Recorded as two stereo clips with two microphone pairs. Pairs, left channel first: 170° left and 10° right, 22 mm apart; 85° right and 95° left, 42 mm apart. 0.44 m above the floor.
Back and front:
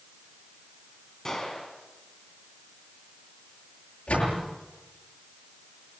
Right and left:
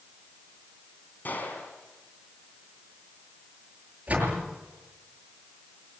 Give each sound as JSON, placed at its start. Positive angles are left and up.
{"t": 1.2, "sound": "a gunshot", "azimuth_deg": -125, "distance_m": 4.0}
{"t": 4.1, "sound": "a door slam", "azimuth_deg": 155, "distance_m": 7.0}